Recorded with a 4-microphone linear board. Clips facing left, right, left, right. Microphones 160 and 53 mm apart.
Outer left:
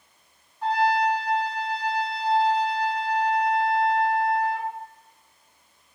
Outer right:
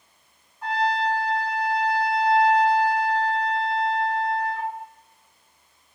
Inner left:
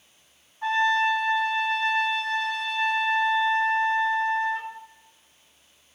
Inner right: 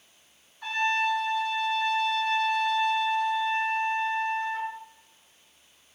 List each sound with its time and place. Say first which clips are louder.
0.6 s a trumpet: outer left 2 dB, inner left 4 dB; 30° left (ahead or behind), 1.9 m